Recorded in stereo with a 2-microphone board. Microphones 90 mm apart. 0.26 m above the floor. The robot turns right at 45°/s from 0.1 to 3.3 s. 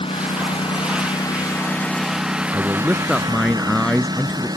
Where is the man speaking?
30° right; by 4.5 s 5° left.